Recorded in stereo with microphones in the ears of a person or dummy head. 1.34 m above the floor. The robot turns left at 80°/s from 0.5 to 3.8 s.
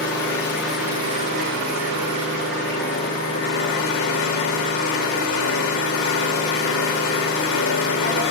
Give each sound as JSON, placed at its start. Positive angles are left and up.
{"t": 0.0, "sound": "an engine running", "azimuth_deg": 20, "distance_m": 0.9}